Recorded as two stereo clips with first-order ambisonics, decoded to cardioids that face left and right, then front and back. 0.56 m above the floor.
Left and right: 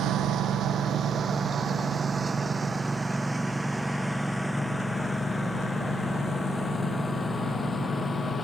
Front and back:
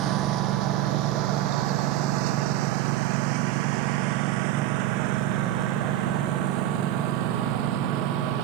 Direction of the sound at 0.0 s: 140° right.